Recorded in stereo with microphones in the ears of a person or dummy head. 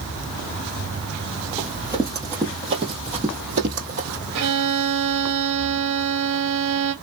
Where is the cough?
No cough in this recording.